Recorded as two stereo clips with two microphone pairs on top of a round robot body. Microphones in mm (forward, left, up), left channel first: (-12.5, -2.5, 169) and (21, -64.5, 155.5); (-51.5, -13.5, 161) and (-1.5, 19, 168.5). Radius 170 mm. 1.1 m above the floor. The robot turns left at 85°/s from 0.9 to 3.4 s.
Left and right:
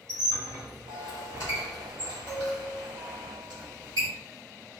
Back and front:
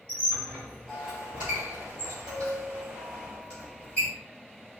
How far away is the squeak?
About 1.3 m.